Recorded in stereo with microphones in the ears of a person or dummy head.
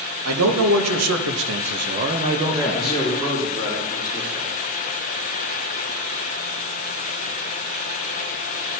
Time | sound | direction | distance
0.2 | a man speaking | 80° right | 2 m
2.7 | a man speaking | 15° left (ahead or behind) | 2 m